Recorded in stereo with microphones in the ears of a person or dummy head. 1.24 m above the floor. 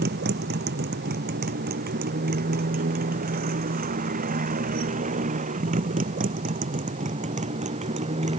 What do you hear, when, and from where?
0.0 s a motorcycle: 50° right (ahead or behind); by 8.4 s 35° right (ahead or behind)